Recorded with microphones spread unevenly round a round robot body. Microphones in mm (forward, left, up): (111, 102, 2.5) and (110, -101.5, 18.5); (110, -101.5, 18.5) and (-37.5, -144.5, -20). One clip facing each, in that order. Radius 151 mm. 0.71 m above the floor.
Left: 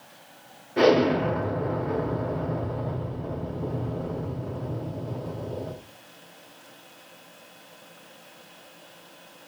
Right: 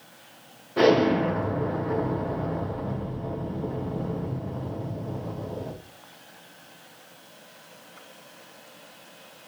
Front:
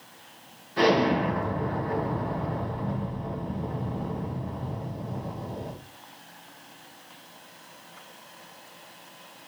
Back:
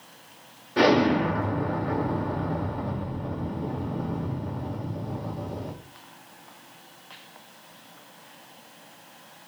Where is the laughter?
No laughter in this recording.